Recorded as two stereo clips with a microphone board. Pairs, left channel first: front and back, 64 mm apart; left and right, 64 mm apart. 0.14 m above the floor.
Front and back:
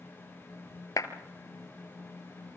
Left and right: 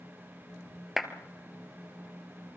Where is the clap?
5° right, 1.9 m.